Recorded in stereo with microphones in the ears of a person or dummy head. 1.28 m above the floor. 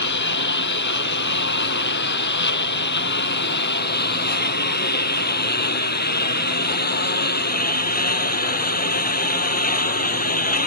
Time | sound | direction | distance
0.0 | a lawn mower | 60° left (ahead or behind) | ?